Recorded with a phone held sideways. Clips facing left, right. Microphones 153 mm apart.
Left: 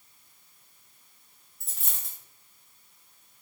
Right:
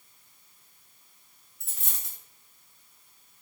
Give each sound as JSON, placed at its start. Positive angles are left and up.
{"t": 1.6, "sound": "a dropped coin", "side_deg": 0, "distance_m": 1.1}